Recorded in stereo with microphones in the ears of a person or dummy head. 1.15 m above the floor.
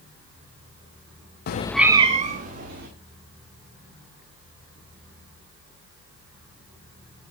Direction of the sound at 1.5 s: 50° left (ahead or behind).